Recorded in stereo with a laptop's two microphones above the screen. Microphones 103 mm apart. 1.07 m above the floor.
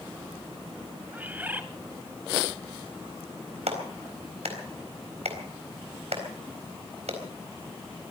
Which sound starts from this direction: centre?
A bird, at 1.1 s.